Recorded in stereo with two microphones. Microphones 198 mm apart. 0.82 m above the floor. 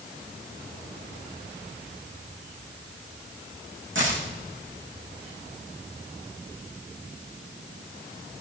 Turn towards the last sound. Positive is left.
turn(degrees=-75)  # may be behind; listen again after turning